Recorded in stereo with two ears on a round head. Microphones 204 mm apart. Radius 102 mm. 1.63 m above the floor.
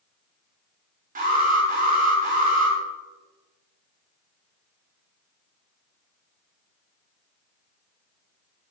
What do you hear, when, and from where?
1.1 s an alarm: 40° right (ahead or behind), 8 m